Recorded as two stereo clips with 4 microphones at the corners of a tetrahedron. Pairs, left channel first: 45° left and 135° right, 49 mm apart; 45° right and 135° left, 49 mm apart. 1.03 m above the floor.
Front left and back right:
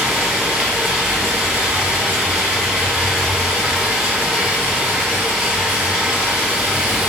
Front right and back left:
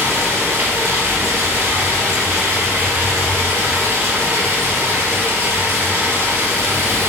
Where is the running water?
155° left, 2.5 m.